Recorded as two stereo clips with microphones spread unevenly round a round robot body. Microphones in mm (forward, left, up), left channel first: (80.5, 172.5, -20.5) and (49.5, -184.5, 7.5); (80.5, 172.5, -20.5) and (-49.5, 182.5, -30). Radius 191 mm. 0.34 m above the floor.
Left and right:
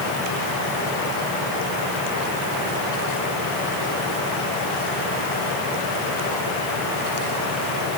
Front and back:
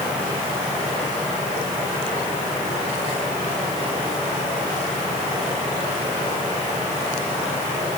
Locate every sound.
Only background noise.